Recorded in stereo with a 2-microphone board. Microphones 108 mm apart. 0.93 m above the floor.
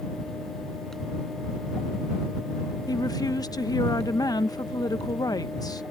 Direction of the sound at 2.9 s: 35° left (ahead or behind).